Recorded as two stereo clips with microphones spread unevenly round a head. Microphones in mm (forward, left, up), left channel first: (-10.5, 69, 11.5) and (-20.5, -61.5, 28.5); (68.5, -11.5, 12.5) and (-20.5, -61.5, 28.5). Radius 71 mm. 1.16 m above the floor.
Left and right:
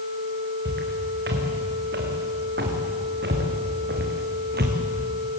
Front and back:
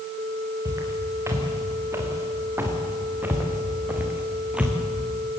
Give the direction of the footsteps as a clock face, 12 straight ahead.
3 o'clock.